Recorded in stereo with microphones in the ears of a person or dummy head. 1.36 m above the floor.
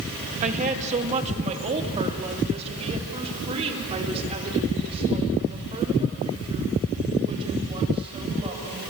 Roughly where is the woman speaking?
Right.